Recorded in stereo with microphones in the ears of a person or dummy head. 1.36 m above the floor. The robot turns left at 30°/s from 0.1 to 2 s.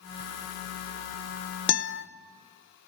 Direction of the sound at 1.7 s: 60° left (ahead or behind).